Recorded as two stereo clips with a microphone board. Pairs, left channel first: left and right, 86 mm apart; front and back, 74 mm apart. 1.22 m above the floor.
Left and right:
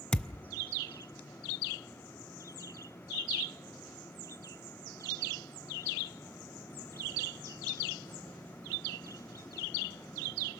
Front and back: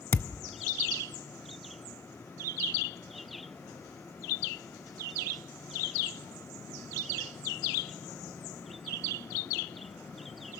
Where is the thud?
20° left, 0.6 m.